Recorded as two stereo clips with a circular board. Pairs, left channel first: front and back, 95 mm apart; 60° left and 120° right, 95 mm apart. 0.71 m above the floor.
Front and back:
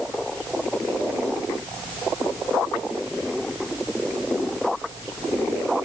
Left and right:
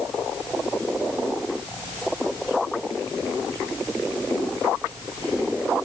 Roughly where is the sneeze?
No sneeze in this recording.